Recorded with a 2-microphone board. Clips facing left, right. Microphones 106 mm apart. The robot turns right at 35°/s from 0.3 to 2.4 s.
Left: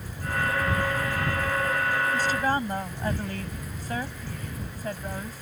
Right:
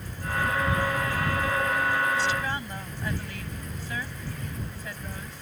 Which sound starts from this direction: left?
A woman speaking, at 2.1 s.